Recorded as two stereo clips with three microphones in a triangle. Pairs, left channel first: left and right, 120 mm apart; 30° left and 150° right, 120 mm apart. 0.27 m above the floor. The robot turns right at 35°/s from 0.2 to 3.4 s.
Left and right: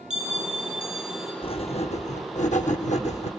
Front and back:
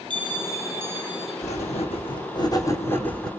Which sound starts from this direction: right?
A bell, at 0.1 s.